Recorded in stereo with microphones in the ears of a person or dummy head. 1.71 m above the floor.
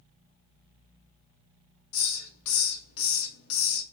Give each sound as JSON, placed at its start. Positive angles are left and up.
{"t": 1.9, "sound": "a hiss", "side_deg": 75, "distance_m": 1.0}